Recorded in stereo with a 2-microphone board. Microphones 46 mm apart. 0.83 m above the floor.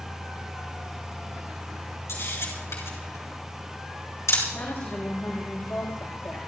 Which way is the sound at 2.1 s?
80° left.